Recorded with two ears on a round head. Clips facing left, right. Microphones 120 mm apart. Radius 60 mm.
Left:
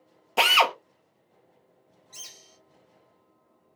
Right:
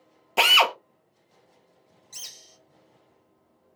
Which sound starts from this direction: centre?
A drill, at 0.4 s.